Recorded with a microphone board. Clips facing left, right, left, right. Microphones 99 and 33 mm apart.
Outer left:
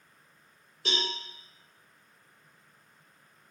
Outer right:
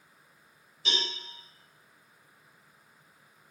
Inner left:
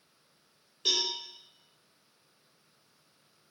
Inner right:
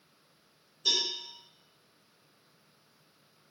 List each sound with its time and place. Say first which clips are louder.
0.8 s a cowbell: outer left 2 dB, even; 55° left (ahead or behind), 1.6 m